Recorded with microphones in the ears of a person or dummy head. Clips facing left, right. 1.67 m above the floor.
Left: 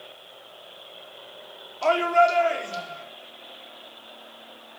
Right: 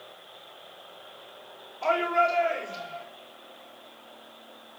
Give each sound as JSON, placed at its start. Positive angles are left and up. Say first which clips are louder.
{"t": 1.8, "sound": "a shout", "louder": "left 5 dB", "side_deg": 55, "distance_m": 5.0}